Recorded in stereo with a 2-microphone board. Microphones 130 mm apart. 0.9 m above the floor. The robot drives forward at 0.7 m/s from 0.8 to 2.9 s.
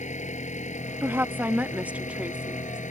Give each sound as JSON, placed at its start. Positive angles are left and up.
{"t": 0.0, "sound": "an engine running", "side_deg": 70}
{"t": 1.0, "sound": "a woman speaking", "side_deg": -20}